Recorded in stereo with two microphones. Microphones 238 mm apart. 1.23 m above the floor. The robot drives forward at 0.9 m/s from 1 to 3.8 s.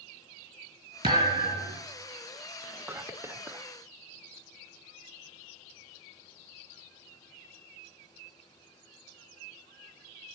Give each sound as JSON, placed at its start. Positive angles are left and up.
{"t": 1.0, "sound": "a thud", "side_deg": -20, "distance_m": 4.0}
{"t": 2.6, "sound": "whispering", "side_deg": -10, "distance_m": 0.7}